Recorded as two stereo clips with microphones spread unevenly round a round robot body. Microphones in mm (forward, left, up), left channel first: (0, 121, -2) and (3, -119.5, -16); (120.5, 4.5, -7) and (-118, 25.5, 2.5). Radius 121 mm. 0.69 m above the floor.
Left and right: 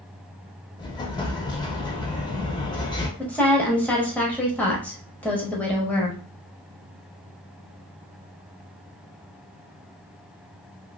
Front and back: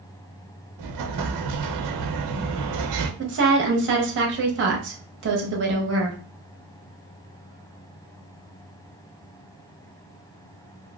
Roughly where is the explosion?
Behind.